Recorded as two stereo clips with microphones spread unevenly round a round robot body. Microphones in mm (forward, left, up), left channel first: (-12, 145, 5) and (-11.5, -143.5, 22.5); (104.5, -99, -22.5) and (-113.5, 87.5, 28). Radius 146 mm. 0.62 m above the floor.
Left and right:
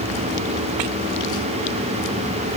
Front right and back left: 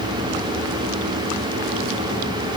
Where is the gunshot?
I don't hear a gunshot.